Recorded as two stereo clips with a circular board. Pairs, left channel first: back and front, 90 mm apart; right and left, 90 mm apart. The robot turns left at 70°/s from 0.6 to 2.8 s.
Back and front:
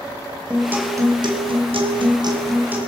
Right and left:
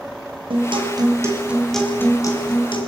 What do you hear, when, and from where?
0.5 s a guitar: 75° left, 3.5 m; by 2.9 s 75° right, 3.5 m